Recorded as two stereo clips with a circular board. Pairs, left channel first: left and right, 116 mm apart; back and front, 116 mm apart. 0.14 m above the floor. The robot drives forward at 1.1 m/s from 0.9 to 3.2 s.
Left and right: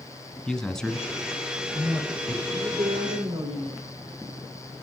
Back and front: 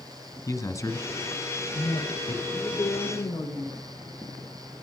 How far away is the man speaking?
About 1.1 m.